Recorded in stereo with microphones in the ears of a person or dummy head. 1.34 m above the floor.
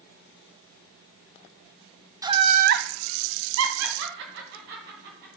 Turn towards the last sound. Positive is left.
turn(degrees=-55)  # may be behind; listen again after turning